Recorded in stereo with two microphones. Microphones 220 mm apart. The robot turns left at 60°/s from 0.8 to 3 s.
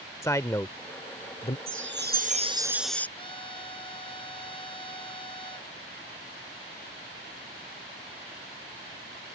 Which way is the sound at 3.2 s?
25° left (ahead or behind).